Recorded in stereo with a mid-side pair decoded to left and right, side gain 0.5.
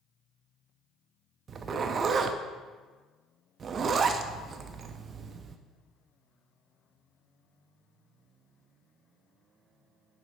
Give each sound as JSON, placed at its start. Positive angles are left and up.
{"t": 1.5, "sound": "a zipper", "azimuth_deg": -45, "distance_m": 0.6}